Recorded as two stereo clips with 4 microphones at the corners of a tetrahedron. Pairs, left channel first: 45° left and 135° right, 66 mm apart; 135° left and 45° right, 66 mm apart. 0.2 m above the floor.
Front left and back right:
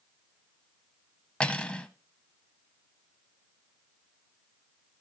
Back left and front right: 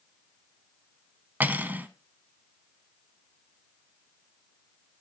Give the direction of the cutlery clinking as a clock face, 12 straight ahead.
1 o'clock.